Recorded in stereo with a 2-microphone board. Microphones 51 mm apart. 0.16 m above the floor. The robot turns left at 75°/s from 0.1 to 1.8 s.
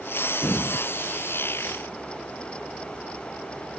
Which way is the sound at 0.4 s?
60° left (ahead or behind).